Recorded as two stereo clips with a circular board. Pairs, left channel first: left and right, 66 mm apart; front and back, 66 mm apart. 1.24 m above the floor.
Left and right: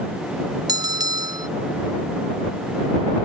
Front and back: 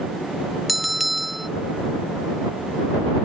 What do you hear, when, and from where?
0.7 s a bell: 90° right